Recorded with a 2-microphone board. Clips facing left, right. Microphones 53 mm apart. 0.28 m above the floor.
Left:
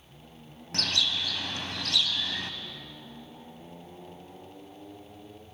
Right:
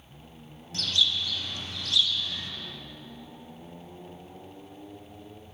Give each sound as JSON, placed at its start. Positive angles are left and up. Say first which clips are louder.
{"t": 0.7, "sound": "a bird", "louder": "right 2 dB", "side_deg": 60, "distance_m": 0.6}